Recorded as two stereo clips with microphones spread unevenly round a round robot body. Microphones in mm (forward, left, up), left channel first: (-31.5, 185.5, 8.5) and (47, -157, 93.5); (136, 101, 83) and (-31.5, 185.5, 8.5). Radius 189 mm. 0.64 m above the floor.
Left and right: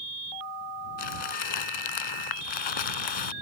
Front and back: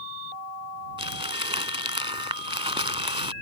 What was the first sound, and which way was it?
Crumpling, 85° left.